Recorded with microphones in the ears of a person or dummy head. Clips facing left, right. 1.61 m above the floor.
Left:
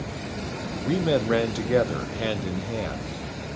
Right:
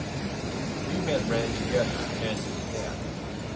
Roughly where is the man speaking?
Left.